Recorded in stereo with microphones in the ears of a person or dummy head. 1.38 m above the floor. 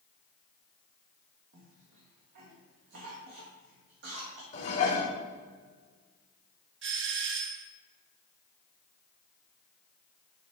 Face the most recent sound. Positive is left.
turn(degrees=-60)  # may be behind; listen again after turning